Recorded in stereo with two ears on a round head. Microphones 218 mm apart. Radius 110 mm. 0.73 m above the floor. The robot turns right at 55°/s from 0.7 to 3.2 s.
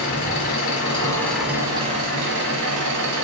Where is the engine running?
145° left, 1.4 m; by 3.2 s 80° right, 1.4 m.